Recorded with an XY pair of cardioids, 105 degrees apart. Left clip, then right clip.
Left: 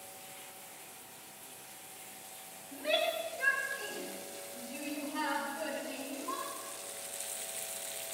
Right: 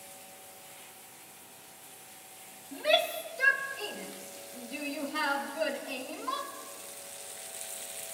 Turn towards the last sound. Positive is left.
turn(degrees=-75)